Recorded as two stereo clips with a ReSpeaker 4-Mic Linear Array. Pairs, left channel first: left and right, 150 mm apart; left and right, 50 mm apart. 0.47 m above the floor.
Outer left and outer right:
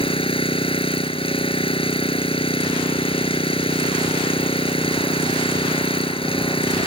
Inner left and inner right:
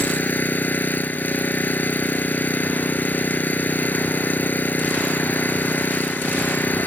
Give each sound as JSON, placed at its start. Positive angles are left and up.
{"t": 0.0, "sound": "an engine running", "side_deg": 40}